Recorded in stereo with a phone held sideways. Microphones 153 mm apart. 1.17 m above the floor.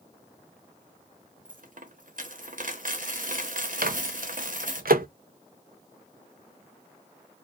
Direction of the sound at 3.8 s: 70° right (ahead or behind).